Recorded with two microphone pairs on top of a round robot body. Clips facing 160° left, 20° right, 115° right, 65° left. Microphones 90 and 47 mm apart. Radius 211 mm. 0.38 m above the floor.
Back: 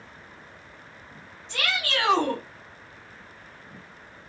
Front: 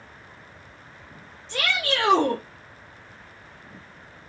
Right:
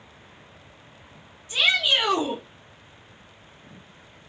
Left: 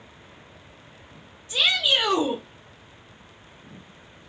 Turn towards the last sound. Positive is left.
turn(degrees=-60)